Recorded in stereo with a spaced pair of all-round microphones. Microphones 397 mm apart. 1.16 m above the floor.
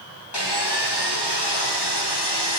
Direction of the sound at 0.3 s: 80° left.